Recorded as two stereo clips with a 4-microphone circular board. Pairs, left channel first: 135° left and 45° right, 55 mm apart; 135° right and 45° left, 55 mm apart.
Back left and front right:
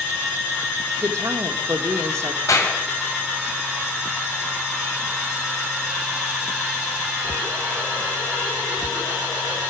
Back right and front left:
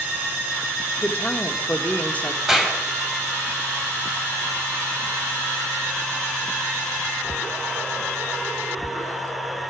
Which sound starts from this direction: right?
A woman speaking, at 1.0 s.